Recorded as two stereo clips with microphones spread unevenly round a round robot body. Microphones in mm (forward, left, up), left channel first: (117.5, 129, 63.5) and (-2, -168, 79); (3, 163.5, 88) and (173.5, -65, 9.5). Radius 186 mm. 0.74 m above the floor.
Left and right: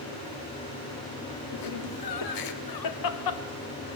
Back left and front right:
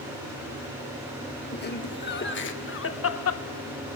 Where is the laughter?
70° left, 3 m; by 3.4 s 90° left, 1.9 m.